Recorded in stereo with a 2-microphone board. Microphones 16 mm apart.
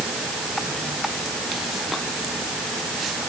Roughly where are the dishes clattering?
I don't hear dishes clattering.